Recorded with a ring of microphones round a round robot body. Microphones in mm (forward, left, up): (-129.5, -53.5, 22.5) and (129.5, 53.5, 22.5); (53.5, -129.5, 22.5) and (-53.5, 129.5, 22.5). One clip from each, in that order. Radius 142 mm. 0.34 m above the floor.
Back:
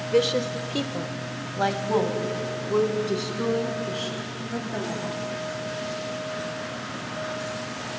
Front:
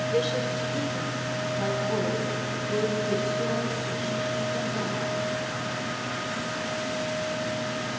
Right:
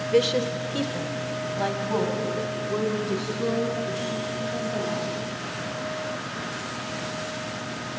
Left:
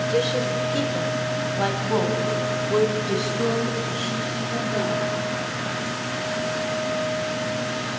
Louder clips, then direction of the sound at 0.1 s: Back 7 dB, right 3 dB; 105° right.